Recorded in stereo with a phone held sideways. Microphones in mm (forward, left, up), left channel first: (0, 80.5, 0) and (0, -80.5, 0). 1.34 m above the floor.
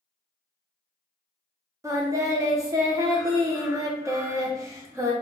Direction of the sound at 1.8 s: 20° right (ahead or behind).